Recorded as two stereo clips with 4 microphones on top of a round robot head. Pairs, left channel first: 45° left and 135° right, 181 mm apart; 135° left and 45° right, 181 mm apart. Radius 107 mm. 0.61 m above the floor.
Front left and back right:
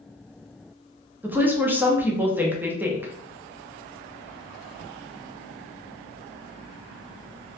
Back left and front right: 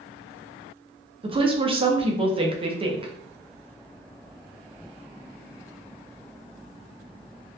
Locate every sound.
1.2 s a woman speaking: 65° right, 0.6 m